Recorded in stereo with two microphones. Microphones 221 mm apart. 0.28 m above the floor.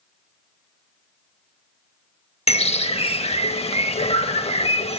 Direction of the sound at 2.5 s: 30° left (ahead or behind).